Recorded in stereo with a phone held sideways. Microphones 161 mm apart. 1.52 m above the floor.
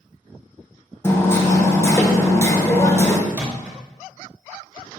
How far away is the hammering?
About 0.6 m.